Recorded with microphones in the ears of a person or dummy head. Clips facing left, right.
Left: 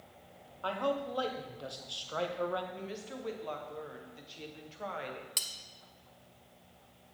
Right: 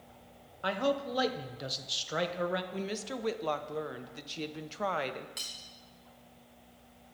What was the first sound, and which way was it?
A man speaking, 25° right (ahead or behind).